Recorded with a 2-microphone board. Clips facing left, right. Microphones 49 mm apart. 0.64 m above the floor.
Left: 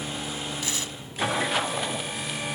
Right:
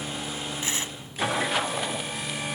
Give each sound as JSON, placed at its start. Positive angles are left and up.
{"t": 0.6, "sound": "tearing paper", "side_deg": -30}